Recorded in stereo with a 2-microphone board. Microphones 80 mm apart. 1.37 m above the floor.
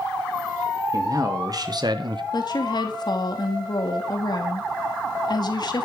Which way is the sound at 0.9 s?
45° right (ahead or behind).